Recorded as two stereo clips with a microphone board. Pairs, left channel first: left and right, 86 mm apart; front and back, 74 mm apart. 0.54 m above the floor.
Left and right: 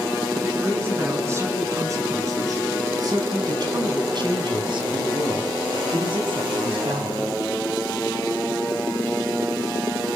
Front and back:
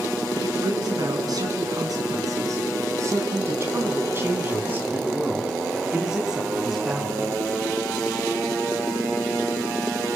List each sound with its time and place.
0.3 s a man speaking: 155° right, 5 m; by 7.3 s 90° right, 4.5 m